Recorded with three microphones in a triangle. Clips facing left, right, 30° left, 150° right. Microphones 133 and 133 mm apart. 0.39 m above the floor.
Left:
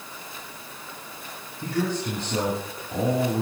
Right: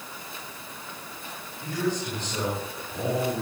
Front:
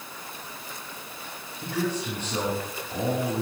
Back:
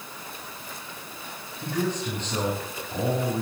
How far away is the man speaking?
About 6 m.